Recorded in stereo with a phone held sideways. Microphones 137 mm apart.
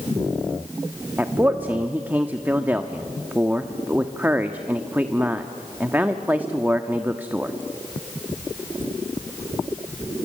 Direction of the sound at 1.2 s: 15° right (ahead or behind).